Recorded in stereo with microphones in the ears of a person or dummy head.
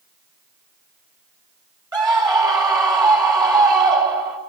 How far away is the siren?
I don't hear a siren.